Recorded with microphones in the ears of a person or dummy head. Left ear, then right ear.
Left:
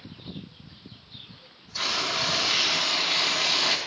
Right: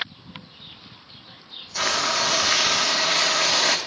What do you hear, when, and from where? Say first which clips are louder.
1.8 s frying: right 4 dB; 25° right (ahead or behind), 0.6 m